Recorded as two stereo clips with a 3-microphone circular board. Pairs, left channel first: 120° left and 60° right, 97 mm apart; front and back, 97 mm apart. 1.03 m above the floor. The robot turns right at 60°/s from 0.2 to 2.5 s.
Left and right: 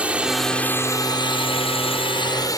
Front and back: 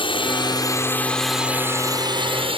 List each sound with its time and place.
0.0 s a drone: 15° left; by 2.6 s 170° left